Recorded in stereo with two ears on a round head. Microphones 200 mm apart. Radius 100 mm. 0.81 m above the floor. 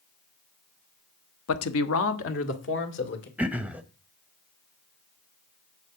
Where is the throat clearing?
5° right (ahead or behind), 0.8 m.